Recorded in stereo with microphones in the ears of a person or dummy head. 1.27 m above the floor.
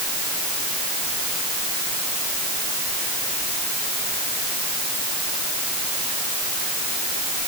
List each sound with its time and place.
Only background noise.